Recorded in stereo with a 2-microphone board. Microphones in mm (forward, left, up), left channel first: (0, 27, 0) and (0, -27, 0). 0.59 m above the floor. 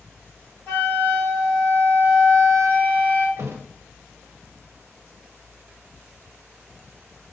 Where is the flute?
30° left (ahead or behind), 1.6 m.